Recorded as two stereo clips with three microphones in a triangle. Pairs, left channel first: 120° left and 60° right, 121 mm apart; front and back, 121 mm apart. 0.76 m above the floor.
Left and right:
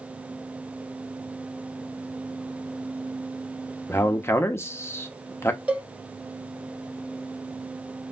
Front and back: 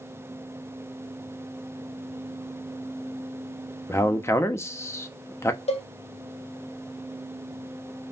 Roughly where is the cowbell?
Ahead.